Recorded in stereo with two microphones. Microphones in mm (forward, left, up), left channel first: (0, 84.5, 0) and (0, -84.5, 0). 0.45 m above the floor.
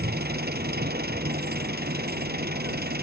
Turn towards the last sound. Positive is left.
turn(degrees=-70)  # may be behind; listen again after turning